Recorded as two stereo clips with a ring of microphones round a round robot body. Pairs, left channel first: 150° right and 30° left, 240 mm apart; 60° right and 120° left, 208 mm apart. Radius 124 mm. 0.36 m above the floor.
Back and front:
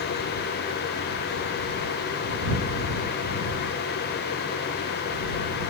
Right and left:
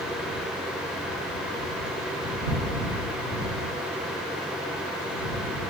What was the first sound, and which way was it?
Only background noise.